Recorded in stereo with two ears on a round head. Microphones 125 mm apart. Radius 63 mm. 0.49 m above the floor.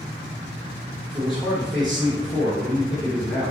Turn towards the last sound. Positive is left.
turn(degrees=0)  # may be behind; listen again after turning